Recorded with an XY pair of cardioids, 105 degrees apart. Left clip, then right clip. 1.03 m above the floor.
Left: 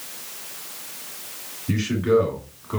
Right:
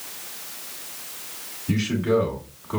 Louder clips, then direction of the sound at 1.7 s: Left 2 dB; 5° left.